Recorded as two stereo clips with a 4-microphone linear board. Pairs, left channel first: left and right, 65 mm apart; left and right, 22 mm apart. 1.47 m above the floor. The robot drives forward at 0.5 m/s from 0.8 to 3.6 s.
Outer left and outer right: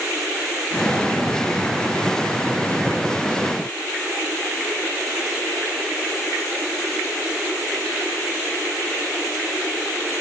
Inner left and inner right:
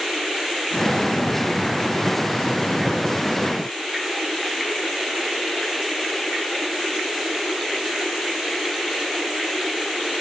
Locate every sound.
Only background noise.